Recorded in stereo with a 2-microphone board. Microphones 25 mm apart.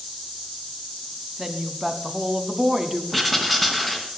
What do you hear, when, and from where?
1.4 s a woman speaking: 10° right (ahead or behind), 1.2 m
3.1 s writing: centre (ahead or behind), 2 m